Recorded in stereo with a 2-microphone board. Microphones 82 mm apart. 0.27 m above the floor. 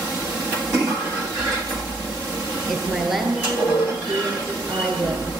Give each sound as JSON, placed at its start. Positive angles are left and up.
{"t": 2.7, "sound": "a woman speaking", "side_deg": -5, "distance_m": 4.5}